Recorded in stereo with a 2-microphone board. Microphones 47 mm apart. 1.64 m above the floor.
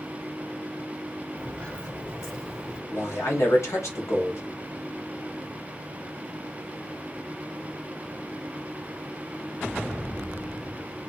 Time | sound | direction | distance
1.4 | footsteps | 25° left (ahead or behind) | 2 m
2.9 | a man speaking | 75° left (ahead or behind) | 1.6 m